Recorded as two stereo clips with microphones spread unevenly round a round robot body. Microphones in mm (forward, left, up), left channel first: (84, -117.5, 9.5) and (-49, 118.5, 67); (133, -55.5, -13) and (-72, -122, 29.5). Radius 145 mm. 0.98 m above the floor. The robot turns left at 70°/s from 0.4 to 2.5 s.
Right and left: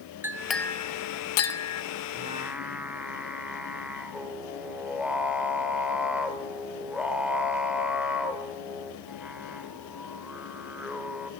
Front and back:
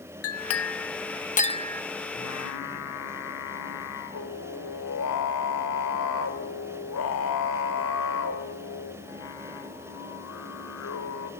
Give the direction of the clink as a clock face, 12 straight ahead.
11 o'clock.